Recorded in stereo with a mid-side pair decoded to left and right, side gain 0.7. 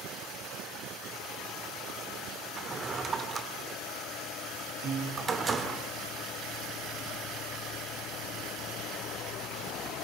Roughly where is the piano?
Ahead right.